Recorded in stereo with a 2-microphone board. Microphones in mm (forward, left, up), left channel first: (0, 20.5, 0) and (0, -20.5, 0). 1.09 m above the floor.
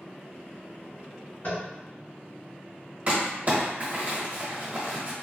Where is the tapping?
60° left (ahead or behind), 1.7 m.